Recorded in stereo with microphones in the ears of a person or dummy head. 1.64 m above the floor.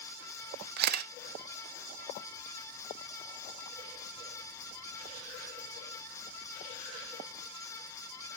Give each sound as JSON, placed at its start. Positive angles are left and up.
{"t": 0.8, "sound": "a camera shutter", "side_deg": -60, "distance_m": 0.9}